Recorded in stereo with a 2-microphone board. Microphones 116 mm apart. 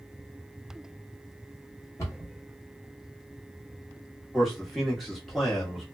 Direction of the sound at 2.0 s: 25° left (ahead or behind).